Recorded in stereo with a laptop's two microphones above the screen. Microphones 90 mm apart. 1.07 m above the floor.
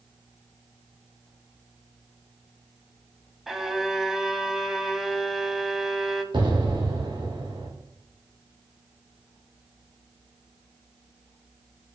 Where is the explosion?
65° right (ahead or behind), 2.5 m.